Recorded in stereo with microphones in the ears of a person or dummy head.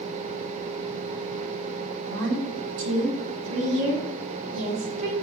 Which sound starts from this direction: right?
A woman speaking, at 2.0 s.